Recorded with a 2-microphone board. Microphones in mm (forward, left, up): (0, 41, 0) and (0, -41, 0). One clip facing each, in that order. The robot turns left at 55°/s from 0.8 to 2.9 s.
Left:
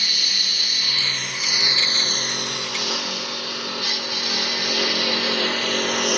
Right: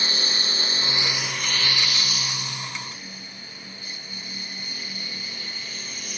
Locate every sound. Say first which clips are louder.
0.0 s a lawn mower: right 2 dB; 30° right (ahead or behind); by 6.2 s 75° left (ahead or behind)